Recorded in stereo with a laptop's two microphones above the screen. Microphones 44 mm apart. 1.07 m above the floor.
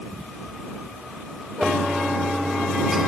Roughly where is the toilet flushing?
Centre.